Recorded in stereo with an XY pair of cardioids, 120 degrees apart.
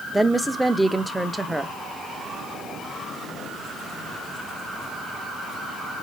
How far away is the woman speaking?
About 0.6 m.